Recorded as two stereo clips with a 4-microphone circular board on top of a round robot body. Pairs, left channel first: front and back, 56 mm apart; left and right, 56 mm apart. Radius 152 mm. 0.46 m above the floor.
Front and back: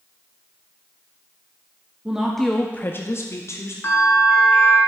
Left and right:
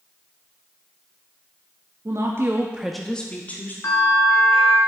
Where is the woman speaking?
105° right, 1.1 m; by 3.7 s 35° left, 1.5 m.